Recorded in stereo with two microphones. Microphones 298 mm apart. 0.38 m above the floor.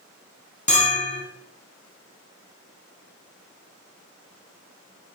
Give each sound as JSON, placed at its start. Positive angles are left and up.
{"t": 0.7, "sound": "a bell", "side_deg": 25, "distance_m": 0.7}